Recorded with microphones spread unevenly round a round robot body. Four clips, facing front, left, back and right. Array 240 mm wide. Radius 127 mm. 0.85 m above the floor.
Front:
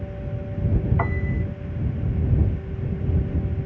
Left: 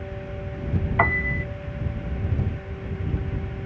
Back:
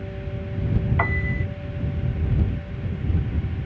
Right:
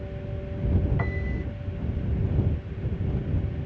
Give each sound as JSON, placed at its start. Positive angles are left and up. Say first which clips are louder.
{"t": 1.0, "sound": "a piano", "louder": "left 9 dB, back 1 dB", "azimuth_deg": 115}